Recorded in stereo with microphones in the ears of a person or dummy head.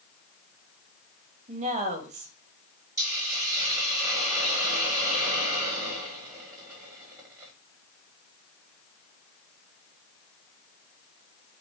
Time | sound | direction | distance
1.5 | a woman speaking | 35° right (ahead or behind) | 0.9 m
3.0 | a hiss | 15° right (ahead or behind) | 1.6 m